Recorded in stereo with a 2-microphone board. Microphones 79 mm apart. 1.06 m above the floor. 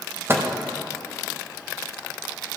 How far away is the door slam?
I don't hear a door slam.